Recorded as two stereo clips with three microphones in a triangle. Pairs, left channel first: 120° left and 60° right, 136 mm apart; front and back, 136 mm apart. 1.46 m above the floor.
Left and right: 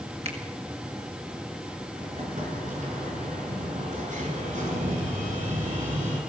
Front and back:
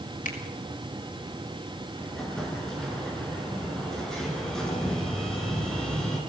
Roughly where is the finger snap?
Ahead.